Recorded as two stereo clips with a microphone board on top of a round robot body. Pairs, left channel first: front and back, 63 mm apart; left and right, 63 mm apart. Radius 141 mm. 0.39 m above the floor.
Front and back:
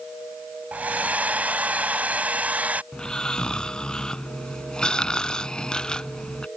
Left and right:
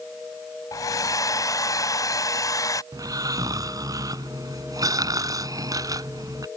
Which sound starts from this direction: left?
A hair dryer, at 0.7 s.